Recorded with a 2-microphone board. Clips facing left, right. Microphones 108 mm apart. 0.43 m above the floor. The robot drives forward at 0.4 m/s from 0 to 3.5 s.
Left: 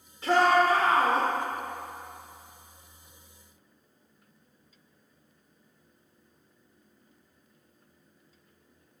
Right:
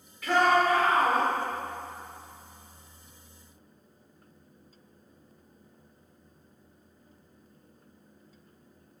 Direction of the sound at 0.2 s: 30° left (ahead or behind).